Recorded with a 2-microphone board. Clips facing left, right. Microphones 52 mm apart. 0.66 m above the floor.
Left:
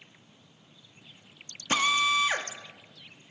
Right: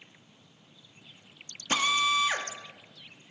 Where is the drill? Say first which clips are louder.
Left 1 dB; 20° left (ahead or behind), 1.3 m.